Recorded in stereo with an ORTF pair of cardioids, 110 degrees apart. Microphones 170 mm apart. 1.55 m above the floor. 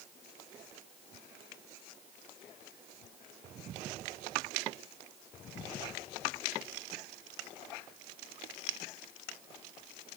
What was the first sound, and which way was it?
Only background noise.